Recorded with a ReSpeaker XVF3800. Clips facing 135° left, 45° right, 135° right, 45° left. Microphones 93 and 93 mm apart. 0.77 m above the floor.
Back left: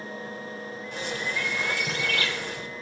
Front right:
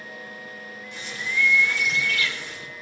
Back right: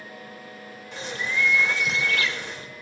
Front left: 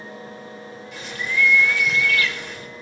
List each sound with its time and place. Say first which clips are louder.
0.9 s a bird: front right 1 dB, front left 2 dB; 170° left, 2.5 m